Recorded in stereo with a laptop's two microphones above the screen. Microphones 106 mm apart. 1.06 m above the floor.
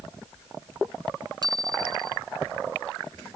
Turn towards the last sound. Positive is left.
turn(degrees=-40)  # may be behind; listen again after turning